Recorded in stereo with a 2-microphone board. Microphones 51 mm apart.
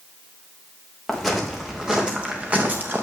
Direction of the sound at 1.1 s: Centre (ahead or behind).